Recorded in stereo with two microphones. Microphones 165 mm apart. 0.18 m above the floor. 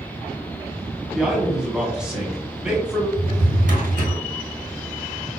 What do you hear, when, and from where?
1.1 s a man speaking: 5° right (ahead or behind), 1.1 m
3.2 s a drawer: 60° right (ahead or behind), 1.7 m